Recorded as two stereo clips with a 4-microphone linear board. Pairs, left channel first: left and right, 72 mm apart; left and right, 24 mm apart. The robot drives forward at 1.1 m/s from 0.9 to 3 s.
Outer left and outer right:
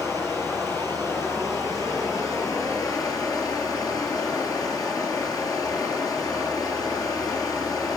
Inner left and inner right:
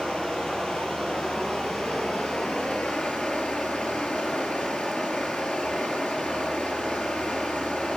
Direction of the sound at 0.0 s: 45° left (ahead or behind).